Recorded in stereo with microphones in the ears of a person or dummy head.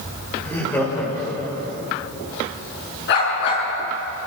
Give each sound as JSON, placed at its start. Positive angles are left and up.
{"t": 0.4, "sound": "laughter", "side_deg": 15, "distance_m": 7.5}
{"t": 3.1, "sound": "a dog barking", "side_deg": 60, "distance_m": 6.5}